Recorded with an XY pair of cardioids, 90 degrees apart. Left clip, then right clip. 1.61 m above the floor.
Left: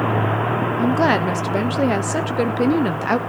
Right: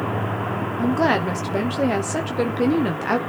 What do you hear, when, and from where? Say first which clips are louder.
0.8 s a woman speaking: left 1 dB; 25° left, 1.0 m